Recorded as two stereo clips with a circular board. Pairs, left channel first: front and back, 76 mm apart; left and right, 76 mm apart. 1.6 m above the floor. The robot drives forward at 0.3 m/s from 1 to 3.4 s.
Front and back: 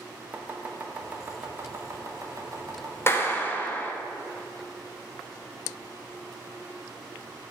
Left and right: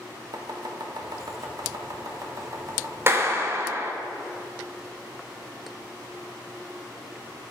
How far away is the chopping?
About 0.8 m.